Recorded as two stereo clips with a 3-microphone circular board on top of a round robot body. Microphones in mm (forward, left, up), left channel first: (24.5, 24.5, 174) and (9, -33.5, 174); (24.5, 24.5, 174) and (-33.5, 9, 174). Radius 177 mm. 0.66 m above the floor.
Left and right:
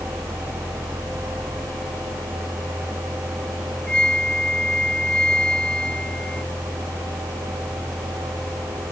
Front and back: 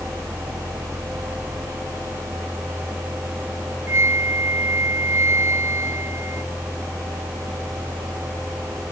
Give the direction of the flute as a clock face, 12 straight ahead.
7 o'clock.